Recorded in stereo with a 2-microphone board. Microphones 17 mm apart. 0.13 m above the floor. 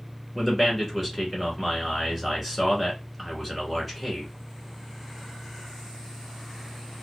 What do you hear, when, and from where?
0.3 s a man speaking: 5° right (ahead or behind), 1.1 m